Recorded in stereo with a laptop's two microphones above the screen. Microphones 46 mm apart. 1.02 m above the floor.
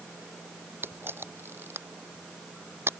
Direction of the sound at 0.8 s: 60° right (ahead or behind).